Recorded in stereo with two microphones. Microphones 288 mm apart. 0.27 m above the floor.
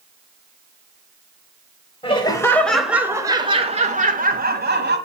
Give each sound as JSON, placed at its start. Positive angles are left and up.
{"t": 2.0, "sound": "laughter", "side_deg": 20, "distance_m": 0.9}